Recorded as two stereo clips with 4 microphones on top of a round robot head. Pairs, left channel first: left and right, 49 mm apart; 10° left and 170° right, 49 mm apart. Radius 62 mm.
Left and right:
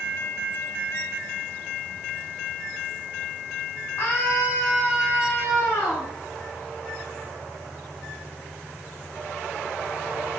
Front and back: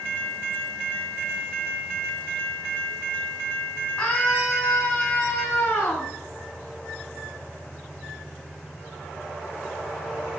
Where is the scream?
50° left, 3 m; by 6.1 s 55° left, 4.5 m.